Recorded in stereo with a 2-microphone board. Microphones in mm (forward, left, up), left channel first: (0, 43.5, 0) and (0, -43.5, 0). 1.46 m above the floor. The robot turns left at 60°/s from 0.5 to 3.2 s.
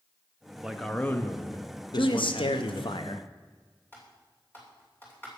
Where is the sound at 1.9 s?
130° left, 0.7 m; by 3.3 s 50° left, 0.7 m.